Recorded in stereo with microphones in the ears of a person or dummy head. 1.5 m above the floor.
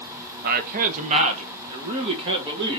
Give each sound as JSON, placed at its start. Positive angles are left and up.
{"t": 0.4, "sound": "a man speaking", "side_deg": -50, "distance_m": 0.6}